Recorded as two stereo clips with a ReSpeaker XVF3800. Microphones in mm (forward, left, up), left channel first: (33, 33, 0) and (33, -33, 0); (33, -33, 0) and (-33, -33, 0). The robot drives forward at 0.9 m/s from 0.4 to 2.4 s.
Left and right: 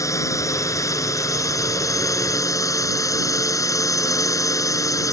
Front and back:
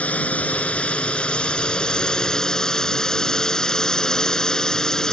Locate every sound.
0.0 s a drone: 65° left; by 5.1 s 80° left